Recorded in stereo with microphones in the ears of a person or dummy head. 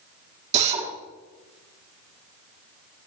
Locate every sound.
0.5 s a drill: 45° right (ahead or behind), 3.5 m